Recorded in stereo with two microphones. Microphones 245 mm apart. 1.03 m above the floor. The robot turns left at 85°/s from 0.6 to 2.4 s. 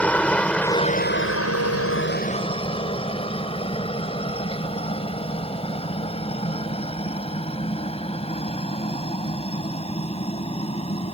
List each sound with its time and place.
0.0 s a helicopter: 5° left (ahead or behind); by 11.2 s 25° left (ahead or behind)